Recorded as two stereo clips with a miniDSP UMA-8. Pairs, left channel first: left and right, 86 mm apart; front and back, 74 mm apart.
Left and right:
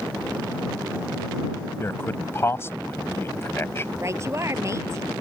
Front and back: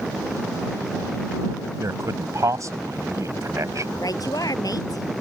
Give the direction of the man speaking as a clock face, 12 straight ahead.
7 o'clock.